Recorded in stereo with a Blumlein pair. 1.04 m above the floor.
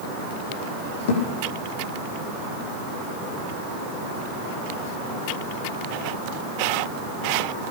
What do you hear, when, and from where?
1.1 s a thud: 55° left, 8 m